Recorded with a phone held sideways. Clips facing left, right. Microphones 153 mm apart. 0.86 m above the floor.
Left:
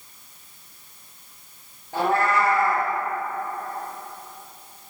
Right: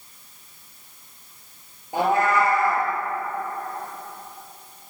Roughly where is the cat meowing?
Centre.